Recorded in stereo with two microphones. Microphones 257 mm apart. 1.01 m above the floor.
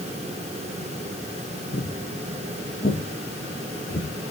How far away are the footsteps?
About 4 m.